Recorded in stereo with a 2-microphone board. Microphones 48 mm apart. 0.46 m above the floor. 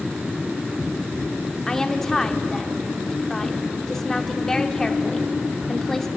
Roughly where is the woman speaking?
Centre.